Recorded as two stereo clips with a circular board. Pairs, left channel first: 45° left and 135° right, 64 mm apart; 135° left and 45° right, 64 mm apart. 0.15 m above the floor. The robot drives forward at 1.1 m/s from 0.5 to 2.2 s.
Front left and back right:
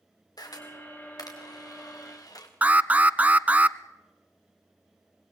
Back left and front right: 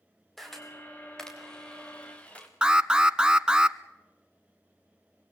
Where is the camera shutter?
50° left, 5.5 m; by 2.5 s 65° left, 4.5 m.